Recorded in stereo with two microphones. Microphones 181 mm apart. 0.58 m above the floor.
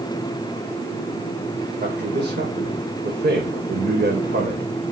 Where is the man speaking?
65° right (ahead or behind), 2.5 m.